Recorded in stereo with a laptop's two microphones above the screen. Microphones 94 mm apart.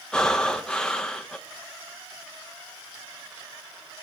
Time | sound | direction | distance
0.1 | breathing | 10° left (ahead or behind) | 0.6 m